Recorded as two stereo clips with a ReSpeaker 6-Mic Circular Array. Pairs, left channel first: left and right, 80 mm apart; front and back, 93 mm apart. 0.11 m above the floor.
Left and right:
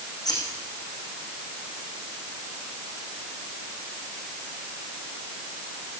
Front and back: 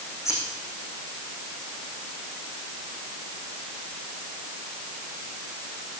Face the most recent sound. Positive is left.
turn(degrees=55)